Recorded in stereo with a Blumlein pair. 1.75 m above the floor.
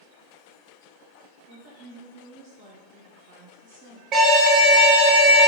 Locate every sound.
1.5 s a woman speaking: 50° right, 1.0 m
4.1 s an alarm: 35° right, 0.9 m